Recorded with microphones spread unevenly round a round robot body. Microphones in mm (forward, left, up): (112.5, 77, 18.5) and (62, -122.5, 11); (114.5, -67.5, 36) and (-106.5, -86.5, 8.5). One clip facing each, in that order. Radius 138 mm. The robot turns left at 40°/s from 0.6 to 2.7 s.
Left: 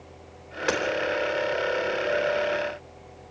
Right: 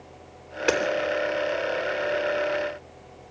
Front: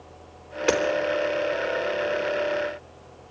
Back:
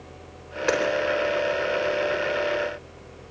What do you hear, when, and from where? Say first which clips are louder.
0.7 s hammering: right 3 dB, front 1 dB; 50° right, 3.5 m; by 0.8 s 55° right, 3.5 m